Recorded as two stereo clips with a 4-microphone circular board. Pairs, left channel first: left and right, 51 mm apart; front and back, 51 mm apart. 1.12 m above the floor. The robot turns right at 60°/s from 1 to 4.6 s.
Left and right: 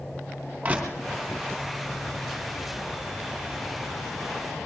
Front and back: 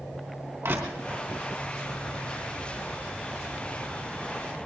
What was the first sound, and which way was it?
Crushing, 155° right.